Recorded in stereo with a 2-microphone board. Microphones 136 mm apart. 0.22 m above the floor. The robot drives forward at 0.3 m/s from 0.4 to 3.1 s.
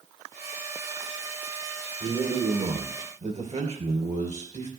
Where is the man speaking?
50° right (ahead or behind), 3.5 m; by 4.7 s 55° right (ahead or behind), 3 m.